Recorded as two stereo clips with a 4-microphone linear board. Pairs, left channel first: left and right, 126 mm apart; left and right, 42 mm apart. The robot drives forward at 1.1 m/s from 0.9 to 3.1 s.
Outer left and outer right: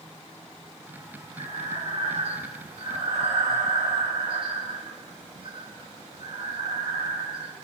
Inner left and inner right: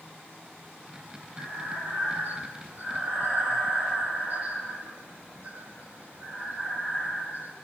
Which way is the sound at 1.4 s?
65° right (ahead or behind).